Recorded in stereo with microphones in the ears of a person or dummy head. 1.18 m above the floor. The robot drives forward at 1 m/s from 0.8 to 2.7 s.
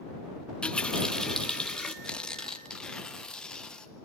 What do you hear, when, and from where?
0.6 s a running tap: centre (ahead or behind), 0.6 m
2.0 s tearing paper: centre (ahead or behind), 0.6 m